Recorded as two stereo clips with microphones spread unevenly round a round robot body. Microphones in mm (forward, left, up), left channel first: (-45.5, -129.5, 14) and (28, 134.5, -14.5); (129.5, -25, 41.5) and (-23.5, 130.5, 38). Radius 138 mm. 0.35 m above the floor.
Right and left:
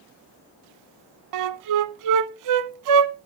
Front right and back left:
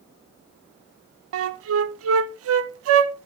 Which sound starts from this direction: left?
A flute, at 1.3 s.